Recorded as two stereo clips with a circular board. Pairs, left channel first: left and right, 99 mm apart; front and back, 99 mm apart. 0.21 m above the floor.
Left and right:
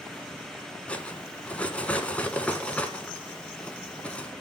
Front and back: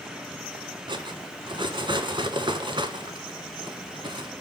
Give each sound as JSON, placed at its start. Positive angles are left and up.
{"t": 0.9, "sound": "cutlery clinking", "azimuth_deg": 165, "distance_m": 1.3}